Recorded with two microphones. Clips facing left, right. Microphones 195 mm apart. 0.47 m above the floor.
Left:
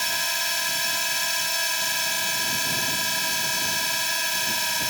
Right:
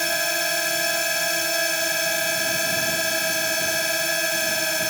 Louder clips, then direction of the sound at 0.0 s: Right 9 dB; 55° right (ahead or behind).